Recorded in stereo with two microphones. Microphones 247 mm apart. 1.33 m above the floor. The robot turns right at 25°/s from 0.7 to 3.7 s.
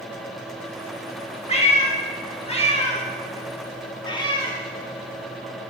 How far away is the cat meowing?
About 0.9 m.